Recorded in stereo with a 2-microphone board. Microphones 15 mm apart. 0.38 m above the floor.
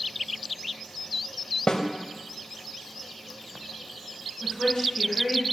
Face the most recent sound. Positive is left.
turn(degrees=55)  # may be behind; listen again after turning